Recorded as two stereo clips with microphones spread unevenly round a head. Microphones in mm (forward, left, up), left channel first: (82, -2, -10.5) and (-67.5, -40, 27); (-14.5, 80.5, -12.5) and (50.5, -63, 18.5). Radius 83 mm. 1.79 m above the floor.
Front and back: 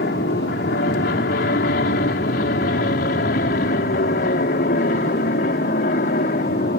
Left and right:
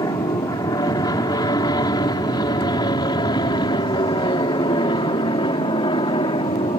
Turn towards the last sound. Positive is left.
turn(degrees=55)